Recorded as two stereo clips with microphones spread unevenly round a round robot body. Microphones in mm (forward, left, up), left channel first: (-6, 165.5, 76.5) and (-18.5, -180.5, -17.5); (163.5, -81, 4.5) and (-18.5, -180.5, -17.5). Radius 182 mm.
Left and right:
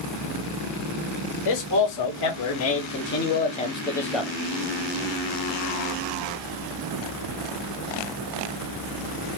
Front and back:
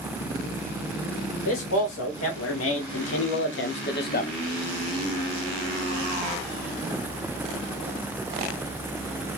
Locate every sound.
1.4 s a man speaking: 50° left, 1.8 m; by 4.3 s 15° right, 1.1 m